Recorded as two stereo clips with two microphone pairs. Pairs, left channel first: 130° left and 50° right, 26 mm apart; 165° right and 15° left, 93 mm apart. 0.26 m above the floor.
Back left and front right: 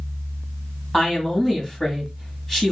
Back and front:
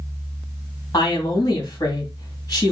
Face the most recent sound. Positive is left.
turn(degrees=-165)